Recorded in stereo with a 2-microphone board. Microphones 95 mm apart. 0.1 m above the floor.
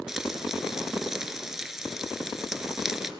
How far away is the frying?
About 1.4 m.